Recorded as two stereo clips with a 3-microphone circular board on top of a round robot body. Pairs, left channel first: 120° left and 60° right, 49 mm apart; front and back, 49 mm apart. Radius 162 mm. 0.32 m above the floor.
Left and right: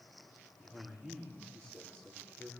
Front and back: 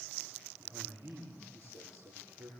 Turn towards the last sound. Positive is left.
turn(degrees=-165)